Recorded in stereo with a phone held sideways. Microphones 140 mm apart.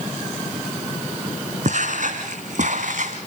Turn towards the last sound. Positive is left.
turn(degrees=-55)  # may be behind; listen again after turning